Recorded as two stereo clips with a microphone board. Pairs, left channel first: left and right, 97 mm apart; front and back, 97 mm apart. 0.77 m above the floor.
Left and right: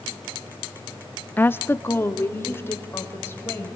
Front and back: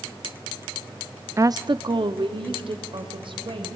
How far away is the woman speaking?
About 0.6 m.